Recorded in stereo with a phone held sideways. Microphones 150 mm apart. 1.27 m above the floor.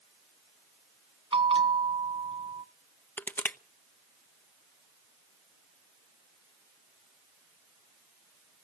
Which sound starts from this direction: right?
A bell, at 1.3 s.